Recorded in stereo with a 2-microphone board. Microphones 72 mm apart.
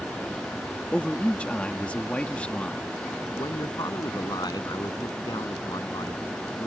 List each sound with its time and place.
0.9 s a man speaking: 15° left (ahead or behind)
3.4 s a man speaking: 65° left (ahead or behind)